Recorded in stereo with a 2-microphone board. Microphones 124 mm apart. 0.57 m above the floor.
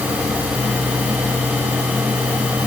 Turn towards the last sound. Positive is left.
No sound to turn to.